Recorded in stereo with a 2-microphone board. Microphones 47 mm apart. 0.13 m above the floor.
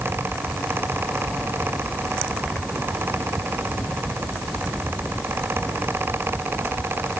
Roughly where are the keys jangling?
I don't hear keys jangling.